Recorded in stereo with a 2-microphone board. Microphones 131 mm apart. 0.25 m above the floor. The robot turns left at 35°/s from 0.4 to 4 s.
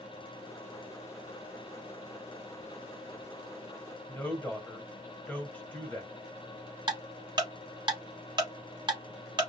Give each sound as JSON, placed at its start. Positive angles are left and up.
{"t": 4.1, "sound": "a woman speaking", "side_deg": 10, "distance_m": 1.1}
{"t": 6.9, "sound": "ticking", "side_deg": -35, "distance_m": 1.0}